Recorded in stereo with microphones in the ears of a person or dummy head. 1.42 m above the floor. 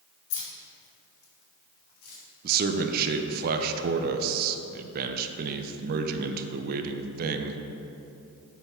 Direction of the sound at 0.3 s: 70° left (ahead or behind).